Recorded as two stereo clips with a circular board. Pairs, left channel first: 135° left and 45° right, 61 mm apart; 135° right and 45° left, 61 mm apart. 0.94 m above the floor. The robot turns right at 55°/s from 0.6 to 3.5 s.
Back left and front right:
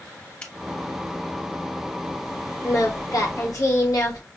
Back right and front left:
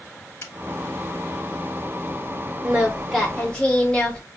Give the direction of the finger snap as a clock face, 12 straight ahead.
5 o'clock.